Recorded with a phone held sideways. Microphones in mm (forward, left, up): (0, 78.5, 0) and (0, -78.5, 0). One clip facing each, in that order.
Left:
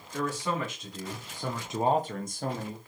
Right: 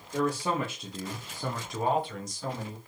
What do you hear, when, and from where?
0.1 s a man speaking: 35° right (ahead or behind), 1.3 m; by 2.8 s 60° left (ahead or behind), 0.9 m